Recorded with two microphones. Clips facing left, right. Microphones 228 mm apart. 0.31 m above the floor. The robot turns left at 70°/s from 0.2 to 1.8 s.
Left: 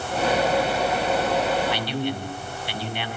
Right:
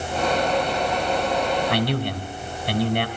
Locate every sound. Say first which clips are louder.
1.7 s a man speaking: right 3 dB; 55° right (ahead or behind), 3 m; by 3.1 s 50° right (ahead or behind), 3 m